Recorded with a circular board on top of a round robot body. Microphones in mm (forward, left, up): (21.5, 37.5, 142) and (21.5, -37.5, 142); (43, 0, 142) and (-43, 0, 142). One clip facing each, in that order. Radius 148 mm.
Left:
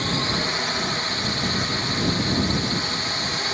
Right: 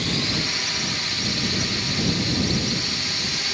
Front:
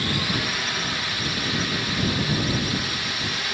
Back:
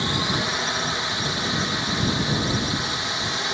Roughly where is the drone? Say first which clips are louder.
Left 2 dB, back 2 dB; behind left.